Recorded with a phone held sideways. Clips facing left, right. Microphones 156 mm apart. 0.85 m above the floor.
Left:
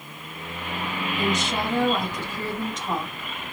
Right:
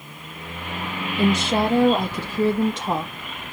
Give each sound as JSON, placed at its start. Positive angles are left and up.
{"t": 1.2, "sound": "a woman speaking", "side_deg": -35, "distance_m": 1.0}